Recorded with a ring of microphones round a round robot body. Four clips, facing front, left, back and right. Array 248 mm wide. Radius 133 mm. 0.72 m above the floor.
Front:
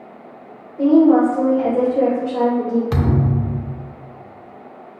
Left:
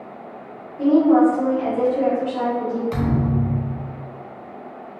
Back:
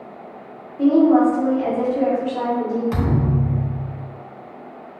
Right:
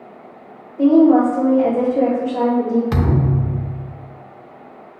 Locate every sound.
0.8 s a woman speaking: 25° right, 3 m
2.9 s a thud: 55° right, 0.7 m